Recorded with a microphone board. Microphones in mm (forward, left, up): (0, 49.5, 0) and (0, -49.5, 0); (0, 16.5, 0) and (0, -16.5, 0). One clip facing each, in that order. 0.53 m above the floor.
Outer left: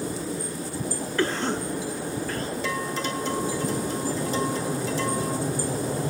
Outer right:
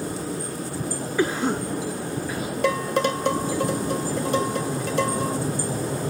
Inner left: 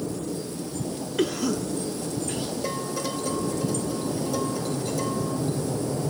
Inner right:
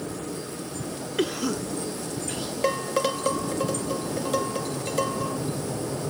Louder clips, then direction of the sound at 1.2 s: Outer right 3 dB, inner left 1 dB; 10° right (ahead or behind).